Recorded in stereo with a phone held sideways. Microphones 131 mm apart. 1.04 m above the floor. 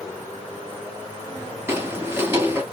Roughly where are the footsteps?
Centre.